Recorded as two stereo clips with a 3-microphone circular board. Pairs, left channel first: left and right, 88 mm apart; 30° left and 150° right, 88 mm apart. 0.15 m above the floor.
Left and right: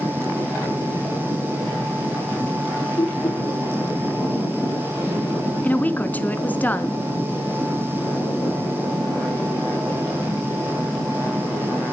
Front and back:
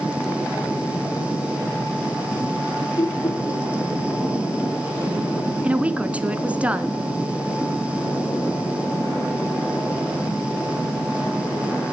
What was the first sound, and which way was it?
Laughter, 75° left.